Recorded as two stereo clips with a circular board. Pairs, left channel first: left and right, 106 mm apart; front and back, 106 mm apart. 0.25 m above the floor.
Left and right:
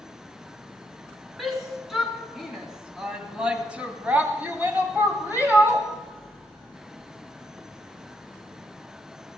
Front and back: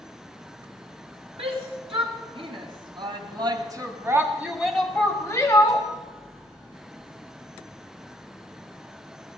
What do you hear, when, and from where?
1.4 s a shout: straight behind, 3.5 m; by 5.9 s 30° right, 1.7 m